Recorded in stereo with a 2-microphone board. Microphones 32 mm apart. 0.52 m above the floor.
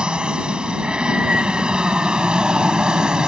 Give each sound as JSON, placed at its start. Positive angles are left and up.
{"t": 0.0, "sound": "an aircraft", "side_deg": -25}